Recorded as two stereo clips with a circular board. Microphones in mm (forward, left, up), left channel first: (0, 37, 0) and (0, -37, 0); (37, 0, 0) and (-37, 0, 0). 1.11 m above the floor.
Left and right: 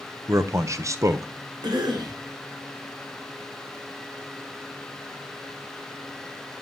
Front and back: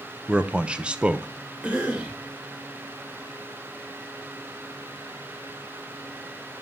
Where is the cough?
105° right, 3.5 m.